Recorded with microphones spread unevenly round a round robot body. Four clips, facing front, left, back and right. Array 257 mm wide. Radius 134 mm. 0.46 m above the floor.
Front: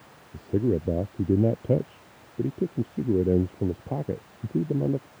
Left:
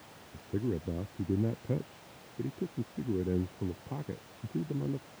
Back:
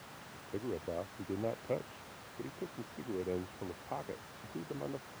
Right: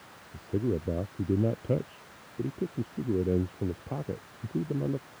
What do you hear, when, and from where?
0.3 s a man speaking: 10° right